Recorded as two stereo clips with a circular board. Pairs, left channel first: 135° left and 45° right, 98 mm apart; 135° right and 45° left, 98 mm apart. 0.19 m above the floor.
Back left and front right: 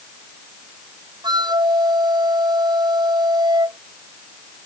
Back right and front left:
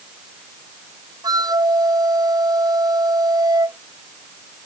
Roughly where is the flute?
Ahead.